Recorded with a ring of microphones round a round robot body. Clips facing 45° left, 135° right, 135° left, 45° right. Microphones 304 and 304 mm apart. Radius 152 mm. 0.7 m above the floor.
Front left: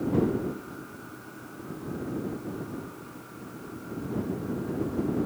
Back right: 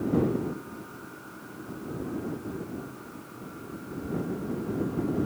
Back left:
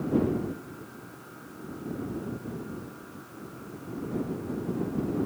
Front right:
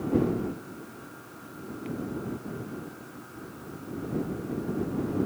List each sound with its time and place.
Only background noise.